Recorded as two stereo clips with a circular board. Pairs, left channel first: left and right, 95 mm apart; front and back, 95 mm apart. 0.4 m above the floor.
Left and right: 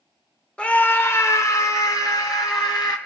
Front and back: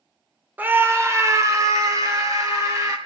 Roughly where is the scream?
Behind left.